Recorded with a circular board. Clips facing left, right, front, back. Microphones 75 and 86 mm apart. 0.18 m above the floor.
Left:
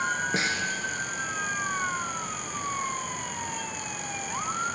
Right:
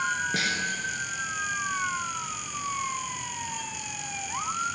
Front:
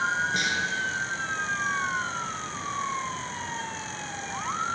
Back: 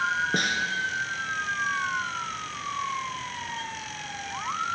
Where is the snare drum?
145° left, 1.1 m.